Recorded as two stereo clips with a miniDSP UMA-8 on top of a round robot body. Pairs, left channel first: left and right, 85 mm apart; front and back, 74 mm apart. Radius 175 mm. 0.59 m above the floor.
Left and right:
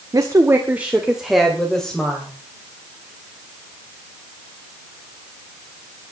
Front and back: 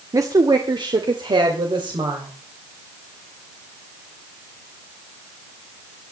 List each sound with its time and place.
0.1 s a woman speaking: 135° right, 1.9 m; by 2.3 s 165° left, 3.5 m